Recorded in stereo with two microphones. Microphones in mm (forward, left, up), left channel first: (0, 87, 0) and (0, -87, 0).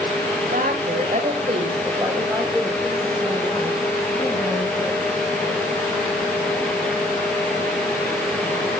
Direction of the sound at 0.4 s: 55° right (ahead or behind).